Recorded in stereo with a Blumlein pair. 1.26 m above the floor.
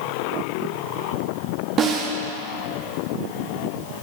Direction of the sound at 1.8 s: 25° right.